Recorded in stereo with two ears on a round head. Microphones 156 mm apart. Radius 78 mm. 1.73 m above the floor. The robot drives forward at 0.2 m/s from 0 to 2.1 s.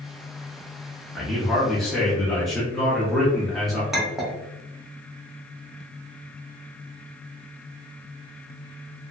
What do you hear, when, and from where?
1.1 s a man speaking: centre (ahead or behind), 0.6 m
3.9 s a clink: centre (ahead or behind), 0.7 m